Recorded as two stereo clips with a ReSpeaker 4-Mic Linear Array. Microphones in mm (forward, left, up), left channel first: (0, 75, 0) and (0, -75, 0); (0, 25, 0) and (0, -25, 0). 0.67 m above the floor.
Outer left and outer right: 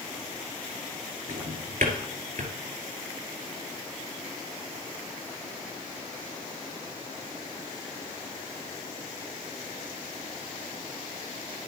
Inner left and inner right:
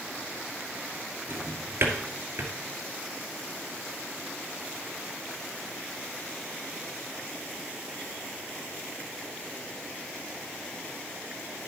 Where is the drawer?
65° right (ahead or behind), 2.5 m.